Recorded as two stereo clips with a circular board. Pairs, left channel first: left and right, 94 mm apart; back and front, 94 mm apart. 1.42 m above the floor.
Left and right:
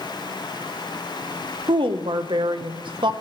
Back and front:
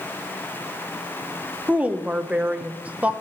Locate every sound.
1.7 s a woman speaking: 75° right, 0.6 m